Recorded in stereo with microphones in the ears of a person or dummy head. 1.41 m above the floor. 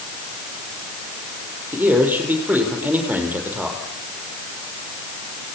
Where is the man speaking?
5° right (ahead or behind), 5.5 m.